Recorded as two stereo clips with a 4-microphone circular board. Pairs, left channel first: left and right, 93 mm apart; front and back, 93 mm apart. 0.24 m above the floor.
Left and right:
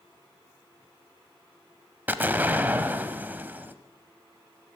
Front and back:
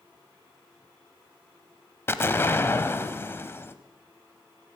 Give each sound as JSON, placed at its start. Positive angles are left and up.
{"t": 2.1, "sound": "an explosion", "azimuth_deg": -40, "distance_m": 0.7}